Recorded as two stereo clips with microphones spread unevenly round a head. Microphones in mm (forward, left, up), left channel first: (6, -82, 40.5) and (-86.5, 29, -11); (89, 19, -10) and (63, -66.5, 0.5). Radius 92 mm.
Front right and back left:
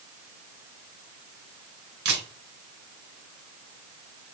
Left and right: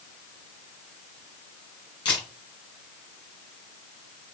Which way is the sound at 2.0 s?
100° left.